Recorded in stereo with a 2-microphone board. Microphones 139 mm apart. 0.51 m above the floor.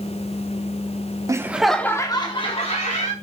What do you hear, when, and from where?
1.3 s laughter: 25° right (ahead or behind), 0.8 m; by 3.1 s 55° left (ahead or behind), 1.5 m